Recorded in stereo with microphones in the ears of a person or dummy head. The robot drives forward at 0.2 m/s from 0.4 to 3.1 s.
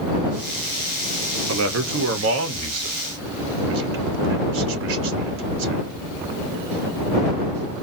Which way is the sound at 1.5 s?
80° right.